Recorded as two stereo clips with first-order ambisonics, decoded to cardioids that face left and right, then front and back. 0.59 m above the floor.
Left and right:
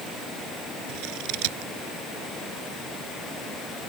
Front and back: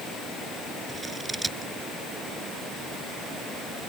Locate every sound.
0.9 s scissors: 100° right